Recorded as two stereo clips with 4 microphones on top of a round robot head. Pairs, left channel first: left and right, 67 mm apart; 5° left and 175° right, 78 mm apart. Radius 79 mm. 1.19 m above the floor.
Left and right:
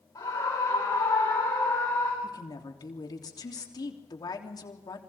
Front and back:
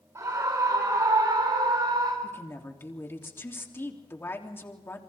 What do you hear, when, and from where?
0.1 s a scream: 135° left, 5 m; by 2.1 s 155° left, 4 m
2.2 s a woman speaking: 70° left, 3 m